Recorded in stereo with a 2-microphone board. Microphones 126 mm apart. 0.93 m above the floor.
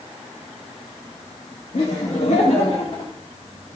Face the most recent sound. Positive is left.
turn(degrees=40)  # may be behind; listen again after turning